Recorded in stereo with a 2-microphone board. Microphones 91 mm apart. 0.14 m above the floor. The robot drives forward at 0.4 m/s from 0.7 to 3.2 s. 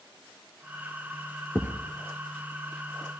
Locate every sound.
1.6 s a thud: 10° left (ahead or behind), 0.9 m; by 3.2 s 5° left (ahead or behind), 1.5 m